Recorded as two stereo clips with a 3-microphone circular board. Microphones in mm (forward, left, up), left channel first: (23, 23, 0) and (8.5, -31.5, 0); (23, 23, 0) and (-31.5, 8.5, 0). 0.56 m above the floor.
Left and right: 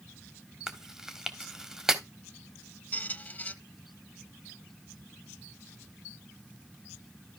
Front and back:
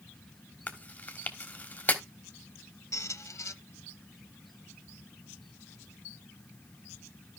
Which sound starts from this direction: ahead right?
Chewing, at 0.7 s.